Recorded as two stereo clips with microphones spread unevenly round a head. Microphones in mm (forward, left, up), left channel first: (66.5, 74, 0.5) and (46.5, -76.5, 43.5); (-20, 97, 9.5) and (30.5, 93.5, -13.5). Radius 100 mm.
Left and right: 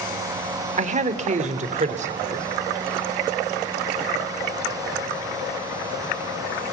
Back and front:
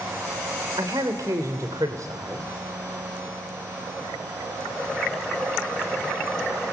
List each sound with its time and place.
0.8 s a man speaking: 55° right, 2.5 m